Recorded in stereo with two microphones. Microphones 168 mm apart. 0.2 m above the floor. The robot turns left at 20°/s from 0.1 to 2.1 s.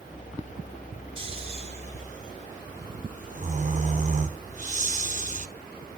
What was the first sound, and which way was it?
Snoring, 35° right (ahead or behind).